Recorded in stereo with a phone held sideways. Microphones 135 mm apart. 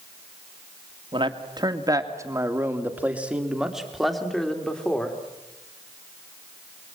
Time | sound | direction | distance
1.1 | a man speaking | 35° right (ahead or behind) | 2 m